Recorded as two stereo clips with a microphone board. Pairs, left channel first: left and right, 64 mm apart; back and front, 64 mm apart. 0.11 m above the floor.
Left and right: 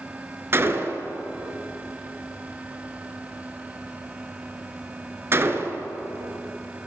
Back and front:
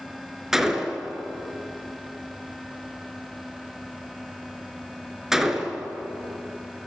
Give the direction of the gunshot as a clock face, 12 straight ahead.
3 o'clock.